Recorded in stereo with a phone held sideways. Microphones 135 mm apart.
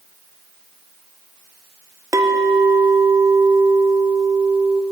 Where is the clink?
25° right (ahead or behind), 0.6 m.